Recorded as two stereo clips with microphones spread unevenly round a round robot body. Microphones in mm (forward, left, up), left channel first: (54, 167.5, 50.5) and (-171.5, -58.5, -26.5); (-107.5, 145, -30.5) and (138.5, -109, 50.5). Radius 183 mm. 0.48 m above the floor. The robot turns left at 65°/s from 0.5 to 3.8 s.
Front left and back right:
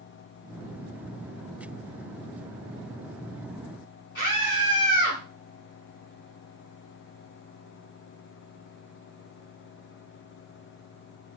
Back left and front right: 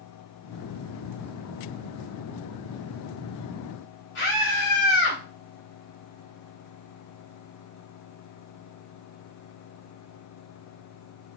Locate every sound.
4.2 s a scream: 115° left, 2 m